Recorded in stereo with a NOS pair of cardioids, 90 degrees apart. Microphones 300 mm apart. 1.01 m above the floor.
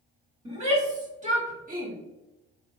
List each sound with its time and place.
0.5 s a shout: 20° right, 1.9 m; by 1.9 s 30° right, 1.1 m